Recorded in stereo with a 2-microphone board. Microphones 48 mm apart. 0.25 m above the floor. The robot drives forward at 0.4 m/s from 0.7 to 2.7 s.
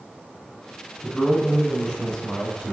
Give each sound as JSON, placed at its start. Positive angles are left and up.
{"t": 1.0, "sound": "a man speaking", "side_deg": 10, "distance_m": 1.2}